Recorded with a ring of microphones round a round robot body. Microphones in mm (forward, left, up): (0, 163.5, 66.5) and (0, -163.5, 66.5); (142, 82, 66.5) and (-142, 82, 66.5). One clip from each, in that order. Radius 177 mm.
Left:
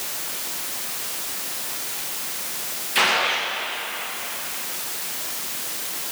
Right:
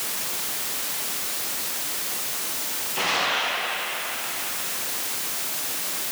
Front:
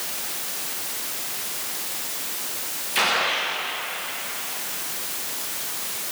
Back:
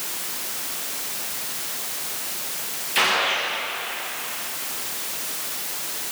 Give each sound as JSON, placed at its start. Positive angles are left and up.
{"t": 3.0, "sound": "a gunshot", "azimuth_deg": 100, "distance_m": 9.0}